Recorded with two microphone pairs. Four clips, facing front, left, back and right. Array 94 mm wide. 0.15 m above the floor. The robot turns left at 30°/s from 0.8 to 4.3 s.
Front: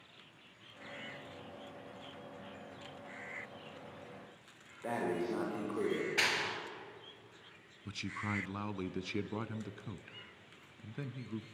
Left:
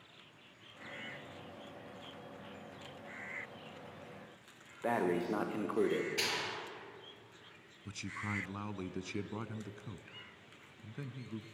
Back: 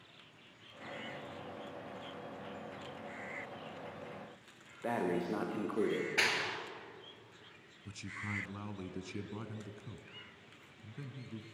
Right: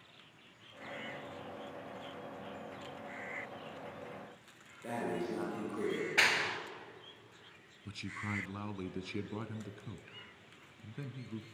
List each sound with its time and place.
4.8 s breathing: 100° left, 5 m
6.2 s a clap: 100° right, 2.5 m
7.8 s a man speaking: 15° left, 1.2 m